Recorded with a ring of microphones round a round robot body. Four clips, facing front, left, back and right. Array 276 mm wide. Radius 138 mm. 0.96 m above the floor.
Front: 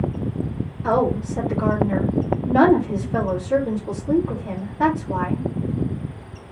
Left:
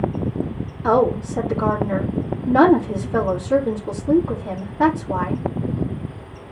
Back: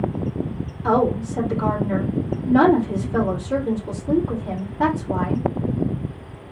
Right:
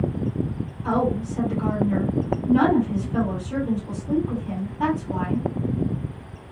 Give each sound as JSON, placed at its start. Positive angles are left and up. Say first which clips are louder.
{"t": 0.8, "sound": "a woman speaking", "louder": "left 6 dB, back 1 dB", "azimuth_deg": 85, "distance_m": 2.5}